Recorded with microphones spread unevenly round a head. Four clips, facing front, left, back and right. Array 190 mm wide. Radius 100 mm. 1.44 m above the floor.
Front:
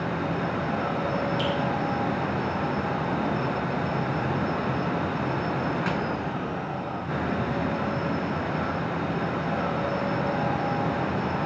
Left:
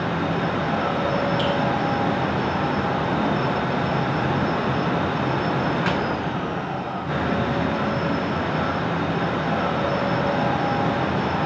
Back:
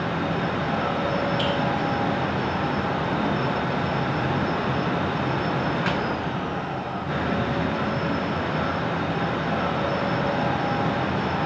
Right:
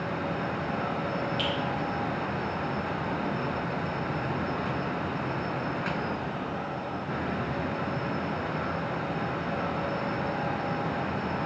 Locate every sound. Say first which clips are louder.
1.4 s a finger snap: left 8 dB, back 2 dB; 25° left, 1.7 m